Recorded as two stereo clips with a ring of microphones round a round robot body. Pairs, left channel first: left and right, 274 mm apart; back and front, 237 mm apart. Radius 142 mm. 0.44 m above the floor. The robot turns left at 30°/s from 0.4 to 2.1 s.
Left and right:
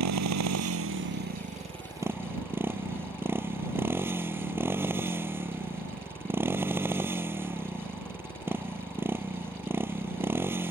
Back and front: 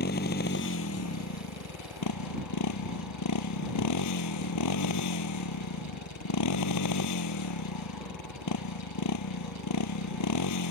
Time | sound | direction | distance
0.0 | a motorcycle | 120° right | ?